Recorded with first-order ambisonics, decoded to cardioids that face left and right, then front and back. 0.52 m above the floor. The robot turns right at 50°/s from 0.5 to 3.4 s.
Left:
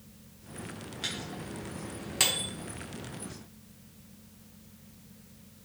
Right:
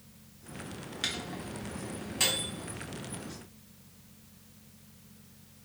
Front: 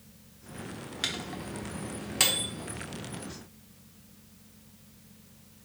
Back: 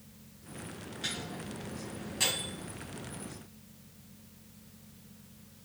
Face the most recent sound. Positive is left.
turn(degrees=95)